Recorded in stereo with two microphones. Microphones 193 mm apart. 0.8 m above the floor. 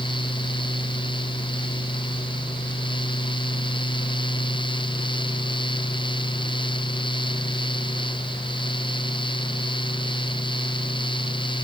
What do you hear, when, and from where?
Only background noise.